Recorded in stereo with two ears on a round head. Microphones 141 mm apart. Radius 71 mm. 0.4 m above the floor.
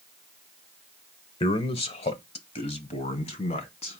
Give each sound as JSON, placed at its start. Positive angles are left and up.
{"t": 1.4, "sound": "a man speaking", "side_deg": 35, "distance_m": 1.1}